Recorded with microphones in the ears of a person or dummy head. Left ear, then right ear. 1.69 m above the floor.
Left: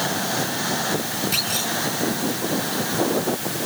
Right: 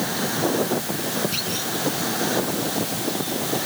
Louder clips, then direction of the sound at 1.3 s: Left 3 dB; 30° left (ahead or behind).